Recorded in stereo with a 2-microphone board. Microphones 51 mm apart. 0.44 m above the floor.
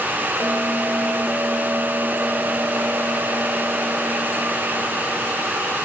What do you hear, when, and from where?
0.4 s a bell: 45° right (ahead or behind)